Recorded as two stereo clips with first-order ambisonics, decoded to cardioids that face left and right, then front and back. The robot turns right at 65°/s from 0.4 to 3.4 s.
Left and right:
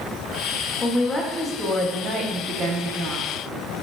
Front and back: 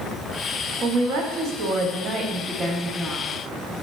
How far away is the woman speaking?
About 0.7 m.